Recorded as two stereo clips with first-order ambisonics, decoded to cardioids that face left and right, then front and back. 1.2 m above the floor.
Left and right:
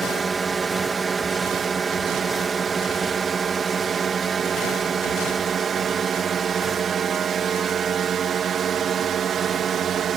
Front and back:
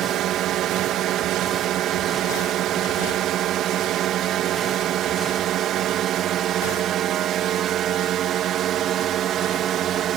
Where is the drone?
155° right; by 10.2 s 140° right.